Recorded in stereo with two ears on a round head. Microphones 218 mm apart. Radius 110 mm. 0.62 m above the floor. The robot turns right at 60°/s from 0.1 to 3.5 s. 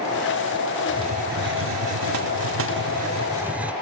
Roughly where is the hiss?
Behind.